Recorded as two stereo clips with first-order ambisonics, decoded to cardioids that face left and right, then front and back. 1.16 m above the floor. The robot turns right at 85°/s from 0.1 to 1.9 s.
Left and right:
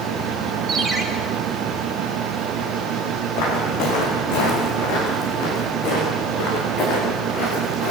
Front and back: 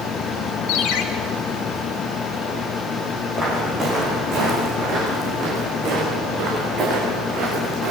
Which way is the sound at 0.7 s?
25° right.